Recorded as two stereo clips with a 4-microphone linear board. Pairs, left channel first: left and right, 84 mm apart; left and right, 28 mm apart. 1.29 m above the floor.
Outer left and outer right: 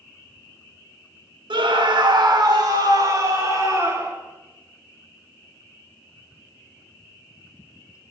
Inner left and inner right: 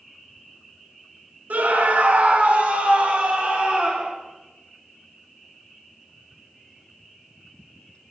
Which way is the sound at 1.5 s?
75° right (ahead or behind).